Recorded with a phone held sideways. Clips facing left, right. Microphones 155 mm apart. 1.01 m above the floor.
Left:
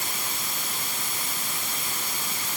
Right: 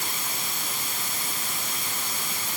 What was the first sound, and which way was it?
Only background noise.